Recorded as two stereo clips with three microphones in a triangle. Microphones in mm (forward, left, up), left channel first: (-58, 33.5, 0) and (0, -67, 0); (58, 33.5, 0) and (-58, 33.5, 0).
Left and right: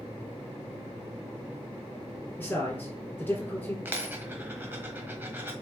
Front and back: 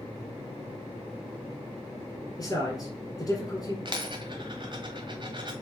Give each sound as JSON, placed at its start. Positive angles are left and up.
{"t": 2.4, "sound": "a man speaking", "azimuth_deg": 50, "distance_m": 2.0}
{"t": 3.9, "sound": "a dropped coin", "azimuth_deg": -130, "distance_m": 1.5}